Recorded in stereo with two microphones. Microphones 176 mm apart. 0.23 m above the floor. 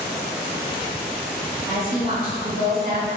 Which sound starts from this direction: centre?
A woman speaking, at 1.7 s.